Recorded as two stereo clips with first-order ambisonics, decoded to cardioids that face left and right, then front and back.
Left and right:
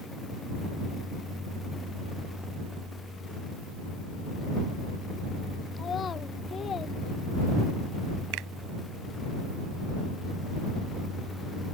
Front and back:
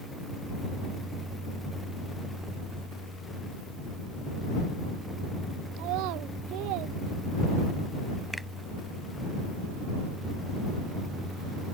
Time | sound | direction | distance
5.8 | a child speaking | 155° left | ?
8.3 | a finger snap | 90° right | ?